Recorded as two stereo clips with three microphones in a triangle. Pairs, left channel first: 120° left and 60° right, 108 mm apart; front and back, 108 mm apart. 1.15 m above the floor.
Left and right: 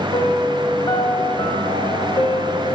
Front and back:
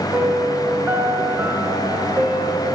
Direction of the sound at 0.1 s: 125° left.